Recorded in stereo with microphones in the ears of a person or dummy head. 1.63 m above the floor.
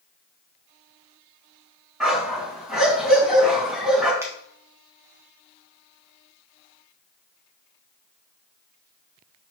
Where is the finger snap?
15° right (ahead or behind), 2.0 m.